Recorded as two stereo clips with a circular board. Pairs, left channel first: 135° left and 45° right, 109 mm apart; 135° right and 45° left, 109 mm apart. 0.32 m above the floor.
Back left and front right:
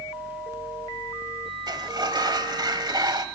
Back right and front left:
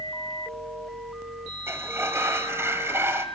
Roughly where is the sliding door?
Ahead.